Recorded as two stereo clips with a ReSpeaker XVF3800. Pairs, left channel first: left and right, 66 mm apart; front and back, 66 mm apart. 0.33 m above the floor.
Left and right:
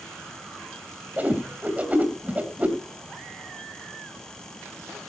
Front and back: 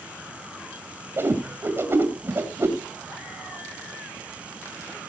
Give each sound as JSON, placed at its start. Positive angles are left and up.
{"t": 1.2, "sound": "a whoosh", "azimuth_deg": -145, "distance_m": 2.0}